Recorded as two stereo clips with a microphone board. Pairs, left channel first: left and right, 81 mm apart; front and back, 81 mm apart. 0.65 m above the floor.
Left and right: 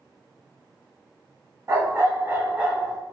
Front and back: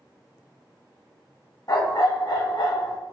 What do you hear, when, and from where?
1.7 s a dog barking: 35° right, 1.4 m; by 3.0 s 10° right, 1.5 m